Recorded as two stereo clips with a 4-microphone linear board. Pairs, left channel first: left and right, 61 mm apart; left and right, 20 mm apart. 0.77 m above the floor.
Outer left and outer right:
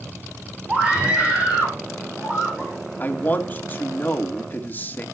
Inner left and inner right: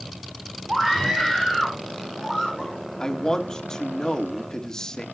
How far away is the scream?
About 2.5 m.